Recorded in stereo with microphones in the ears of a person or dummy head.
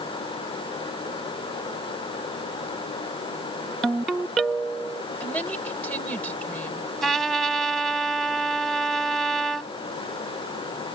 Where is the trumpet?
10° left (ahead or behind).